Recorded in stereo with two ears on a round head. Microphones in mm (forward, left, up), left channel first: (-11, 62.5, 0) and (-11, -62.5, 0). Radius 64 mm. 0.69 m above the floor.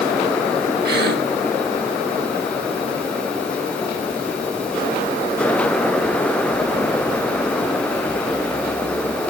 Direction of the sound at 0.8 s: 75° right (ahead or behind).